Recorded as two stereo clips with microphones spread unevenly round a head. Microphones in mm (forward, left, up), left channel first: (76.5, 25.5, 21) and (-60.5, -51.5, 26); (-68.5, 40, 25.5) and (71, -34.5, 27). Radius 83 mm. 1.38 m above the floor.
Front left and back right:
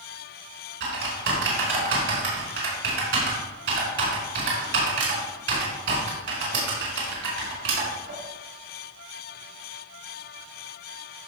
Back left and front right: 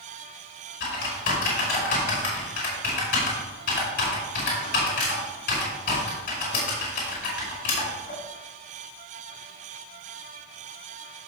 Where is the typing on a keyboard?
170° right, 4.5 m.